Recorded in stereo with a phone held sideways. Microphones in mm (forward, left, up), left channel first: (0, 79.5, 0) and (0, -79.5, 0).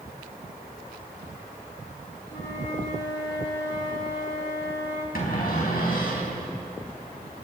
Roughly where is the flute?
Left.